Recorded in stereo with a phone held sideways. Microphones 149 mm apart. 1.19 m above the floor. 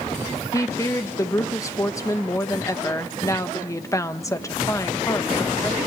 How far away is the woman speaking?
About 1.3 m.